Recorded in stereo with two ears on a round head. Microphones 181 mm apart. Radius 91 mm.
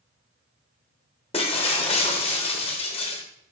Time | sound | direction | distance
1.3 | breaking glass | 30° left (ahead or behind) | 1.0 m